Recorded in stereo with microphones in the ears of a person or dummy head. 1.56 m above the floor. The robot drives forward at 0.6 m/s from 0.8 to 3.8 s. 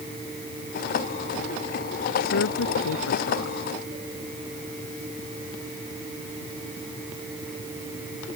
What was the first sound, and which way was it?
A woman speaking, 80° left.